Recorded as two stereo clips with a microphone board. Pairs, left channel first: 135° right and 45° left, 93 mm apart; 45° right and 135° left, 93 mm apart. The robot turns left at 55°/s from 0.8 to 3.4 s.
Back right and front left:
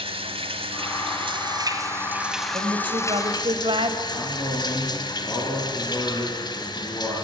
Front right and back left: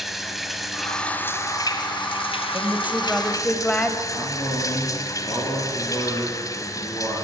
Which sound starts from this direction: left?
A woman speaking, at 2.5 s.